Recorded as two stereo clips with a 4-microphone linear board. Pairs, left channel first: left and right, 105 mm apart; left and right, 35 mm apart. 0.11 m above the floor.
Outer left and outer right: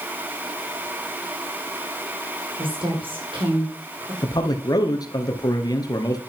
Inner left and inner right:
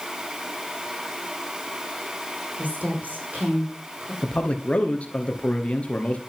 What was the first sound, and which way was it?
A woman speaking, 60° right (ahead or behind).